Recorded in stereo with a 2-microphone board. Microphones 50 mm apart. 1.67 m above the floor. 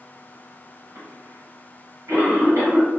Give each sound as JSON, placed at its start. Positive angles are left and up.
{"t": 0.9, "sound": "a cough", "side_deg": -65, "distance_m": 1.7}